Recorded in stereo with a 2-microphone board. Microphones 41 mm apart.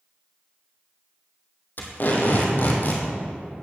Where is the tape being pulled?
50° left (ahead or behind), 2.0 m.